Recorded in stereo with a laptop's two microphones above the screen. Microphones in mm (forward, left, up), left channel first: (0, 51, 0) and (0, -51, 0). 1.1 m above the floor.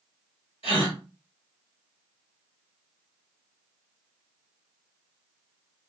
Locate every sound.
0.6 s a gasp: 70° left (ahead or behind), 1.9 m